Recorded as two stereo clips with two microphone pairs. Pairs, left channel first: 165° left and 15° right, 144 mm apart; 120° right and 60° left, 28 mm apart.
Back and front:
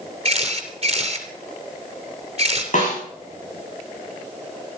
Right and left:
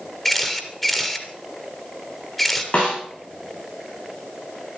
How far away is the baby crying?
No baby crying in this recording.